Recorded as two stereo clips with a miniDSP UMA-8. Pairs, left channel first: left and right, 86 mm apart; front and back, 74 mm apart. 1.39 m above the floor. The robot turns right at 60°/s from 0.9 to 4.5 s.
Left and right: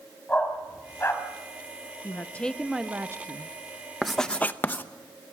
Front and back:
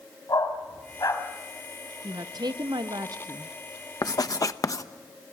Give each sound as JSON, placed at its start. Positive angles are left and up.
{"t": 0.3, "sound": "a dog barking", "azimuth_deg": 20, "distance_m": 4.0}
{"t": 2.0, "sound": "a woman speaking", "azimuth_deg": 145, "distance_m": 0.8}
{"t": 4.0, "sound": "writing", "azimuth_deg": -5, "distance_m": 0.8}